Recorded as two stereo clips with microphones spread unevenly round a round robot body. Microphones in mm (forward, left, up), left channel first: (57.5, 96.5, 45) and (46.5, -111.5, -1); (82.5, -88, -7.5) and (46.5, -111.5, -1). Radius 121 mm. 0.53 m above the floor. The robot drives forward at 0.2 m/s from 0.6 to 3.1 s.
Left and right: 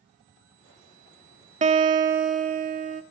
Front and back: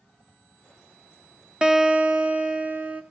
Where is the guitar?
75° right, 0.6 m; by 3.0 s 105° right, 0.6 m.